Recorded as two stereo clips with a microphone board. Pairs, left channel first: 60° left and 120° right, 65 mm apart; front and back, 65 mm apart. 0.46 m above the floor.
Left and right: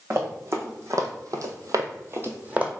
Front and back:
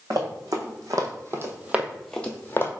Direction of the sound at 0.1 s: 165° right.